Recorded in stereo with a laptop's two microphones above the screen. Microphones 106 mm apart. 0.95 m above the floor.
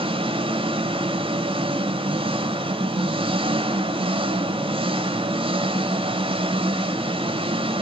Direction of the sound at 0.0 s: 60° right (ahead or behind).